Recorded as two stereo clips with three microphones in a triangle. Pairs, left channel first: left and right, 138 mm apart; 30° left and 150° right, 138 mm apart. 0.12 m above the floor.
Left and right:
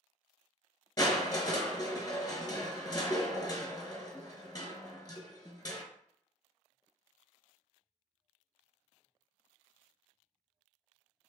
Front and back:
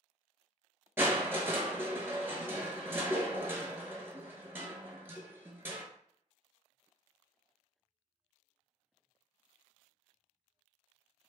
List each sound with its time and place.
1.0 s crushing: 145° left, 0.6 m